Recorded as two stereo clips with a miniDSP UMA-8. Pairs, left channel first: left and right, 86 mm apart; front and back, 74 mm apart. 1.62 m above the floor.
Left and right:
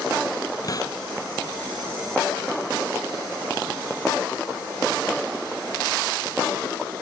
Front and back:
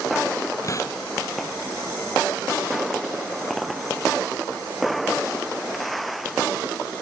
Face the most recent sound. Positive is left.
turn(degrees=45)